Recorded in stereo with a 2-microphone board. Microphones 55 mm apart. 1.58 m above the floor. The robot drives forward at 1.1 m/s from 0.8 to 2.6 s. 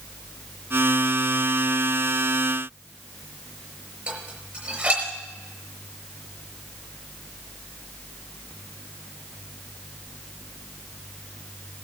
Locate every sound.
4.1 s dishes clattering: 30° right (ahead or behind), 5 m